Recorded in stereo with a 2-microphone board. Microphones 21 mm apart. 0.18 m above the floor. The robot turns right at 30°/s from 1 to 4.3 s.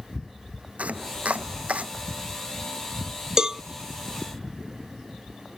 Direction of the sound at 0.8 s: 75° right (ahead or behind).